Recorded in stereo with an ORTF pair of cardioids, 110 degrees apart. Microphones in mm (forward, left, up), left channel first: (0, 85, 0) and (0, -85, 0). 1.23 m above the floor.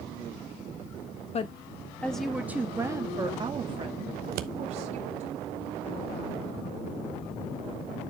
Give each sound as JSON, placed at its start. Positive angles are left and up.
{"t": 1.3, "sound": "a woman speaking", "azimuth_deg": 40, "distance_m": 1.0}
{"t": 4.2, "sound": "scissors", "azimuth_deg": -65, "distance_m": 0.9}